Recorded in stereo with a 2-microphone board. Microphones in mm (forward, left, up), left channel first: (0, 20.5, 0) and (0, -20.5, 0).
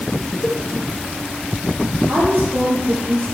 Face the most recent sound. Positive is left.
turn(degrees=-60)  # may be behind; listen again after turning